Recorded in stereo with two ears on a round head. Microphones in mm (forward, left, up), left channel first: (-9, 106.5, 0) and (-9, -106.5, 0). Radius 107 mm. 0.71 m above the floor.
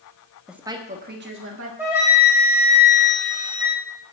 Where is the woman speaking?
Centre (ahead or behind), 1.1 m; by 1.7 s 60° right (ahead or behind), 1.9 m.